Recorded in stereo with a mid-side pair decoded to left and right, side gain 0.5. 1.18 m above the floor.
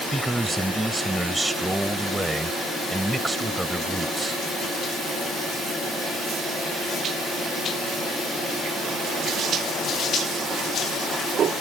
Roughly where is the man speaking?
Ahead.